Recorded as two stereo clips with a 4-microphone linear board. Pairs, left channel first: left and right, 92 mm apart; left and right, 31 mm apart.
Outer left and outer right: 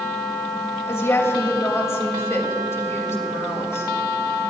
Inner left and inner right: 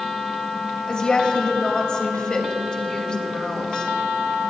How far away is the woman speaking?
About 3 m.